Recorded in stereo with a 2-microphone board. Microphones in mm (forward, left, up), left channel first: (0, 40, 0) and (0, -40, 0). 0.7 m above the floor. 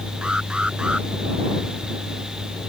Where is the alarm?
10° right (ahead or behind).